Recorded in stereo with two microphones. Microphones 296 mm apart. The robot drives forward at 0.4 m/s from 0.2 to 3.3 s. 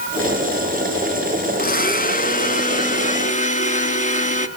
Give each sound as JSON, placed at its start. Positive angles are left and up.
{"t": 1.6, "sound": "a blender", "side_deg": 30, "distance_m": 1.4}